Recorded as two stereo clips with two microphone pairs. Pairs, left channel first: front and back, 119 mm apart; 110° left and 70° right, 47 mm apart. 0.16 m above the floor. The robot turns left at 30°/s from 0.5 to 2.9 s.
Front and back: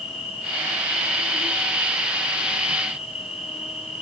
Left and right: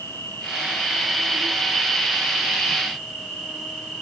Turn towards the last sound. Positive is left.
turn(degrees=30)